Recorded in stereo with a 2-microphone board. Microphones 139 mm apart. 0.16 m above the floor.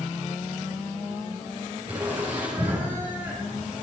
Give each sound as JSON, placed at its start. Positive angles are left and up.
{"t": 1.9, "sound": "laughter", "side_deg": -35, "distance_m": 3.5}